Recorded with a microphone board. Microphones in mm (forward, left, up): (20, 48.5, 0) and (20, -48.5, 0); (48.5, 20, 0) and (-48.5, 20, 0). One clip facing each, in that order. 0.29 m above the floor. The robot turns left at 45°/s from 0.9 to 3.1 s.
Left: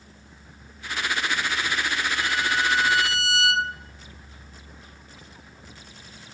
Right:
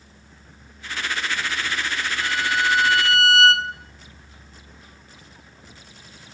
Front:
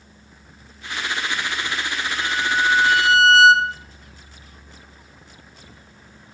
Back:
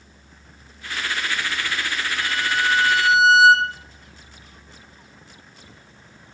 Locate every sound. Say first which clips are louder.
2.2 s a violin: right 4 dB, front 3 dB; 55° right, 0.6 m; by 3.7 s 95° right, 0.6 m